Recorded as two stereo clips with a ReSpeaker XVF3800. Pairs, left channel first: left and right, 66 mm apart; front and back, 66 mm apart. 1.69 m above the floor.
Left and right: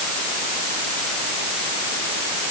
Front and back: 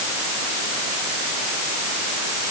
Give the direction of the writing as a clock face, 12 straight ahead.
No writing in this recording.